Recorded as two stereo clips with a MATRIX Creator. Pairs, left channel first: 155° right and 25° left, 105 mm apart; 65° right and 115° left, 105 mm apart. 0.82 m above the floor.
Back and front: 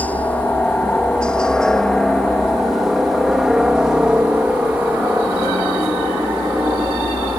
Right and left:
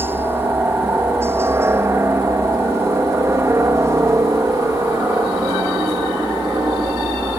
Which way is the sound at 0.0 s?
150° left.